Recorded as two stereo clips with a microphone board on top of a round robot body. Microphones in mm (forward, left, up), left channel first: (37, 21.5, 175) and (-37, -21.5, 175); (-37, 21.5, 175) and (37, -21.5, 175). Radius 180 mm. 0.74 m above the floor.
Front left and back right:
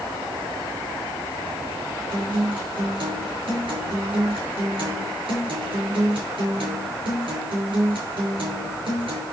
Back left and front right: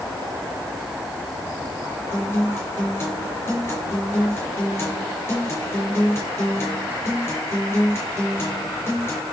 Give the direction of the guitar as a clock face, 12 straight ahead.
5 o'clock.